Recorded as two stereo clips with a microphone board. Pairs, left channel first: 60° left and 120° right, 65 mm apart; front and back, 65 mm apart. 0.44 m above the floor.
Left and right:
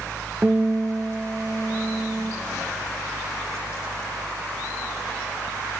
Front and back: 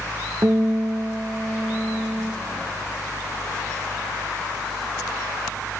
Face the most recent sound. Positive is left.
turn(degrees=-175)